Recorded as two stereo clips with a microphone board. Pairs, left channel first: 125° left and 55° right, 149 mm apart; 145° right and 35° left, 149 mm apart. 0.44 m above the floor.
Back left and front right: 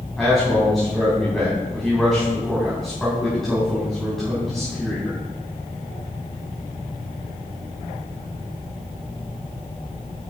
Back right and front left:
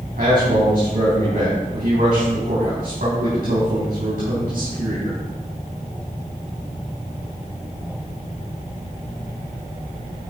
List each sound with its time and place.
0.2 s a man speaking: 35° left, 3.5 m